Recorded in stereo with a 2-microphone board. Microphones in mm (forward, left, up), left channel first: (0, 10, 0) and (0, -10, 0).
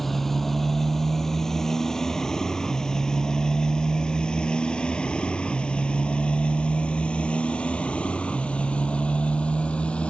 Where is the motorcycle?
20° left (ahead or behind); by 10.1 s 75° left (ahead or behind).